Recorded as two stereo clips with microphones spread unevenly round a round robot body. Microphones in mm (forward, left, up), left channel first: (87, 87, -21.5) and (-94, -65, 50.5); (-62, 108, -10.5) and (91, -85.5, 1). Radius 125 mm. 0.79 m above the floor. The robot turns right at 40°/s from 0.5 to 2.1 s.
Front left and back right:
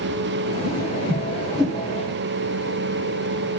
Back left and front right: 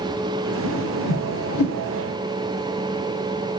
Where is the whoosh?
95° left, 3 m; by 1.8 s 140° left, 3 m.